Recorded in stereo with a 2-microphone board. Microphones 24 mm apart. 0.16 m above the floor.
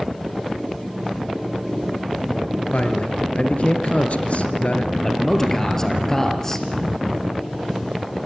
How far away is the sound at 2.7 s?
About 3 m.